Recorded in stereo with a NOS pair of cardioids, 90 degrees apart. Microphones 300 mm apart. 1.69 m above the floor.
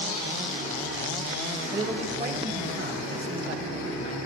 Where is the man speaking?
20° right, 1.1 m; by 4.2 s 45° right, 2.5 m.